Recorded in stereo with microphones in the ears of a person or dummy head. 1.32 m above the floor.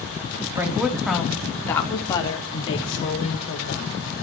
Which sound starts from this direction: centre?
A woman speaking, at 0.6 s.